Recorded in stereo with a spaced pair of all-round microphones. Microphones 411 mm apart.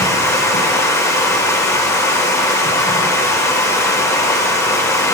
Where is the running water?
10° left (ahead or behind), 1.1 m.